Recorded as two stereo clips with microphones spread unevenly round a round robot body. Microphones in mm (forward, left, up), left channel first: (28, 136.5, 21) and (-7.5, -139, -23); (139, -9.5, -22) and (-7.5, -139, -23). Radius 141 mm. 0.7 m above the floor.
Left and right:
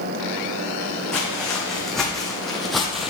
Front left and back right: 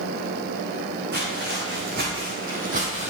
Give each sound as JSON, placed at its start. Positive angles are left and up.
{"t": 1.1, "sound": "footsteps", "azimuth_deg": 170, "distance_m": 3.0}